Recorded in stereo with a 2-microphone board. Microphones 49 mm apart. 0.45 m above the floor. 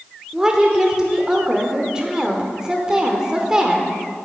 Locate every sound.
0.3 s a woman speaking: 15° right (ahead or behind), 1.0 m